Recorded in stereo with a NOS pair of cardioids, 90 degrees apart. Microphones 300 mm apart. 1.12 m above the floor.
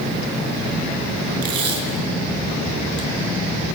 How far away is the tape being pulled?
About 6 m.